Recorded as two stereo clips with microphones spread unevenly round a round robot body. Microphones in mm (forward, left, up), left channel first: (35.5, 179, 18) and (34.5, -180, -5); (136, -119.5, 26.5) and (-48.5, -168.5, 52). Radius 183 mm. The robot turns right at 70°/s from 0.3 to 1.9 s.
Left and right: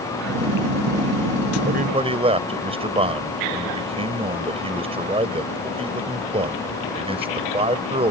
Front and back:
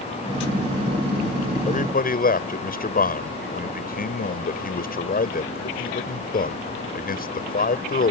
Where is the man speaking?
35° right; by 8.1 s 15° right.